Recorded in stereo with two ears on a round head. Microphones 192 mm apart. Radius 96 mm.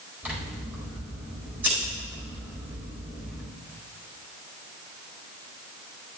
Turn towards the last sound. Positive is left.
turn(degrees=-10)  # may be behind; listen again after turning